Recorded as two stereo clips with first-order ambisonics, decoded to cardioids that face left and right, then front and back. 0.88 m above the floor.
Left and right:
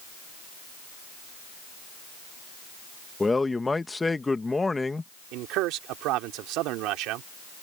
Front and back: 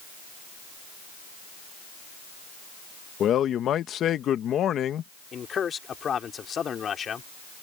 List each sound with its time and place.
3.2 s a man speaking: 15° left
5.3 s a man speaking: 65° right